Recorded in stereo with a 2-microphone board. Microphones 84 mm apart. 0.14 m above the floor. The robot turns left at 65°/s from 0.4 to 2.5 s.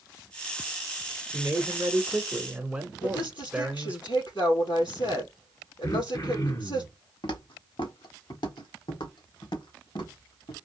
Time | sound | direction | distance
1.3 | a man speaking | 20° right (ahead or behind) | 1.1 m
3.0 | a woman speaking | 70° left (ahead or behind) | 3.5 m
5.8 | throat clearing | 50° left (ahead or behind) | 1.8 m
7.2 | footsteps | 75° left (ahead or behind) | 1.4 m